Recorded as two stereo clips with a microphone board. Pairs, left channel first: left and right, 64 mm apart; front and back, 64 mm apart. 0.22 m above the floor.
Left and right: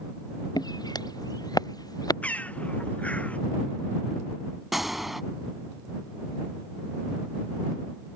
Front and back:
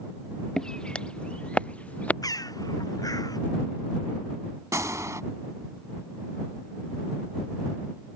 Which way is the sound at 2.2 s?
20° left.